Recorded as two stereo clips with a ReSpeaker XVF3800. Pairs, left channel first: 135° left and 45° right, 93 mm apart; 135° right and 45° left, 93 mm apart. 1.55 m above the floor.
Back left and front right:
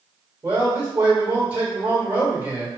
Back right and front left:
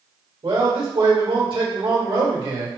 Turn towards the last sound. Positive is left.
turn(degrees=30)